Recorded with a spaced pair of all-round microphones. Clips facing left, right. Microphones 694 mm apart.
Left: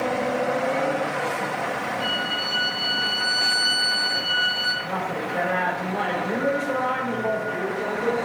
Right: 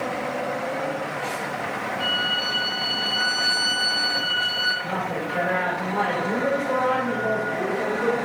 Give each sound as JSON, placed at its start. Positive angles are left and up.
{"t": 2.0, "sound": "a violin", "side_deg": -15, "distance_m": 3.0}
{"t": 4.8, "sound": "a woman speaking", "side_deg": -35, "distance_m": 4.0}